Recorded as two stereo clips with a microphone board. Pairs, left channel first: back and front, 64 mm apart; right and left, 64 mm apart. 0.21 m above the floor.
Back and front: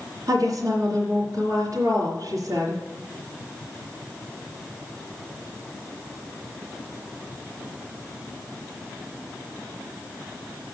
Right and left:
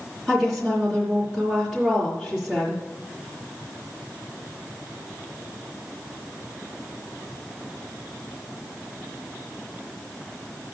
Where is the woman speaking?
5° right, 3.5 m.